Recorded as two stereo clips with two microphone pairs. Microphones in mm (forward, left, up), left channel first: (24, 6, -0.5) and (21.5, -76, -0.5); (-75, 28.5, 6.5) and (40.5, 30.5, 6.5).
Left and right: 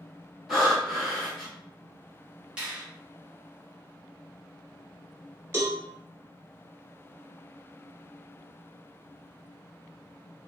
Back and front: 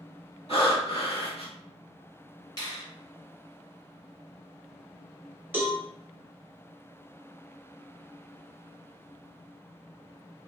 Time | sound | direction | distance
0.5 | breathing | 175° right | 1.2 m
2.6 | a finger snap | 160° right | 1.4 m
5.5 | a cowbell | 70° right | 0.9 m